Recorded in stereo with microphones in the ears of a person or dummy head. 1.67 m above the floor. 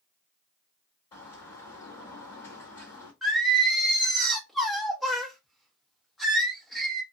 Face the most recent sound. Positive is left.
turn(degrees=0)  # may be behind; listen again after turning